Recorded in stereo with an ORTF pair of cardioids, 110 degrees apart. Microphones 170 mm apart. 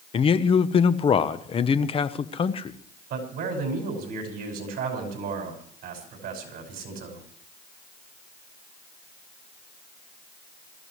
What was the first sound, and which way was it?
A man speaking, 35° left.